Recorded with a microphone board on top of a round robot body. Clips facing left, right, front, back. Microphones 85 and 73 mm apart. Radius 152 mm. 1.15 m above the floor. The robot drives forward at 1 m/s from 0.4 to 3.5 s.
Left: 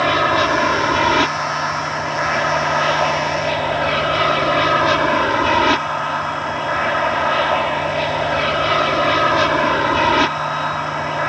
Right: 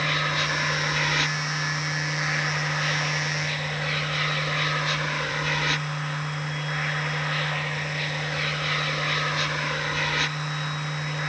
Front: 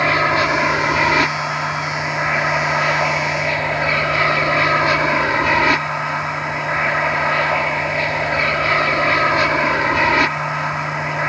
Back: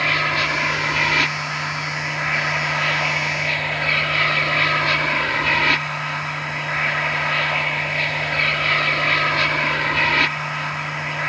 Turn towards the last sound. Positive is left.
turn(degrees=65)